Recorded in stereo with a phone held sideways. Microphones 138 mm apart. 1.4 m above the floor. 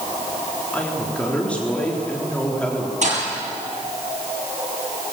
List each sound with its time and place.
0.7 s a woman speaking: 10° left (ahead or behind), 3.5 m
3.0 s a thud: 60° right (ahead or behind), 8.5 m